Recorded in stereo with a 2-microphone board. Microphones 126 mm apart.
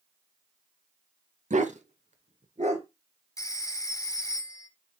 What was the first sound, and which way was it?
A dog barking, 70° right (ahead or behind).